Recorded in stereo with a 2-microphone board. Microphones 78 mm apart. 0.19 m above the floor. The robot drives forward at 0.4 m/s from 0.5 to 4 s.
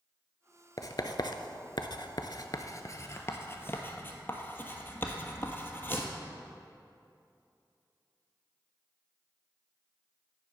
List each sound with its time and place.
0.8 s writing: 50° left (ahead or behind), 0.6 m; by 6.1 s 30° left (ahead or behind), 1.1 m